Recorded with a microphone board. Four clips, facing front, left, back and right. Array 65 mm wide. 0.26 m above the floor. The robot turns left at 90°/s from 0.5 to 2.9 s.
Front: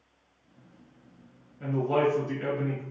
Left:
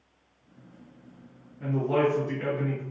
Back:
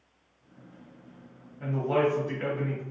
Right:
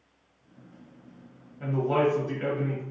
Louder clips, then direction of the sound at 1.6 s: Even, front 1 dB; 110° right.